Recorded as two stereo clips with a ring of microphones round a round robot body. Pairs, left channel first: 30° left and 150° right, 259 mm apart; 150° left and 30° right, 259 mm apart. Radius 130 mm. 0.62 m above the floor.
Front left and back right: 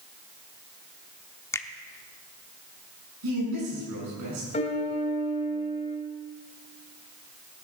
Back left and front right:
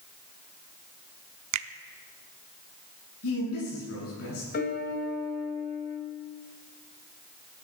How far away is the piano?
About 1.9 m.